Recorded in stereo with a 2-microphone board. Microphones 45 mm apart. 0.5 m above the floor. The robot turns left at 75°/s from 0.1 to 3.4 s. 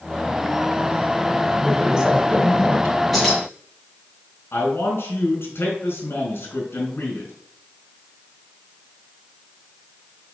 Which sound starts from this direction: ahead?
A woman speaking, at 1.6 s.